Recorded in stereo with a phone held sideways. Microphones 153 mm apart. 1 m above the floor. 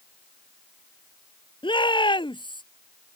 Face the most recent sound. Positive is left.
turn(degrees=30)  # may be behind; listen again after turning